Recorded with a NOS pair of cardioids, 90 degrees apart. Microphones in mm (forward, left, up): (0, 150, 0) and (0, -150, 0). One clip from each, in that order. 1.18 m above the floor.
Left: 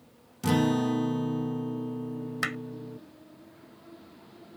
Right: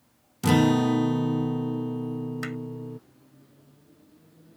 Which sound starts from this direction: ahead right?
A guitar, at 0.4 s.